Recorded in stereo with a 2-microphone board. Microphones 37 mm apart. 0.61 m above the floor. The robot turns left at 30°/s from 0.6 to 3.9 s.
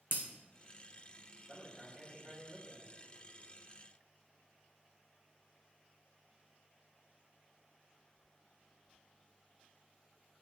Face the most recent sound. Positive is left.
turn(degrees=-55)